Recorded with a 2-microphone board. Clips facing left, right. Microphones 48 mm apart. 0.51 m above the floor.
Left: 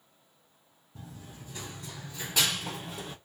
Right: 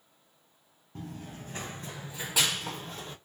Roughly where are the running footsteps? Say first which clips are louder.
Right 5 dB; right.